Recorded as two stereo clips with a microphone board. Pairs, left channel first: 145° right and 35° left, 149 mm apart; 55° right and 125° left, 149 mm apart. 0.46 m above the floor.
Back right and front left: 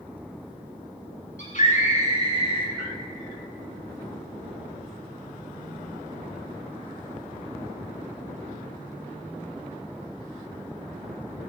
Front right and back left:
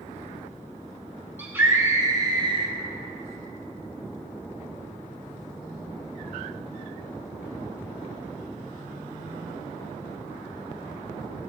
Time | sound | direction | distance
1.4 | a scream | 160° right | 3 m